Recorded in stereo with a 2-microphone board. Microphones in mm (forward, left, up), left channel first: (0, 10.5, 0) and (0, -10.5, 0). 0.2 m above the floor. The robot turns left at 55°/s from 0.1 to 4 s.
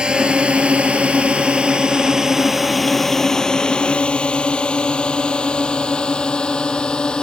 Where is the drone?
50° right (ahead or behind); by 7.2 s 45° left (ahead or behind).